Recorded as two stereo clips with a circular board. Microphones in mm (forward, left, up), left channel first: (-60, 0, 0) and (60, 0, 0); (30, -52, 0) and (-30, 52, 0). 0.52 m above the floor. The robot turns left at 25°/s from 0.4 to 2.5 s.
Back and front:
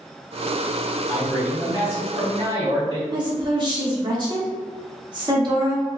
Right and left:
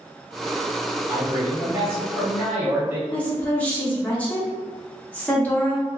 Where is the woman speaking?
10° left, 0.8 m.